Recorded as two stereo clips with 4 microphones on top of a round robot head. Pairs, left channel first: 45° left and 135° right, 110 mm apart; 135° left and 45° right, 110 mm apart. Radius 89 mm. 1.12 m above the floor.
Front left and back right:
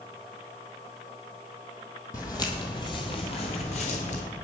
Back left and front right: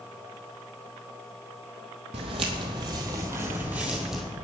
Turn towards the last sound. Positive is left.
turn(degrees=45)